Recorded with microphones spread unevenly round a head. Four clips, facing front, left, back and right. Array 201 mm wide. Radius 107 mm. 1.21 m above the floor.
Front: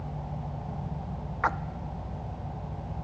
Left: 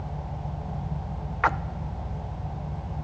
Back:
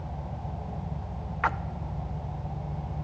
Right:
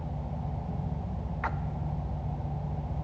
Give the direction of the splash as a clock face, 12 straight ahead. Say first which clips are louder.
Left 11 dB, even; 10 o'clock.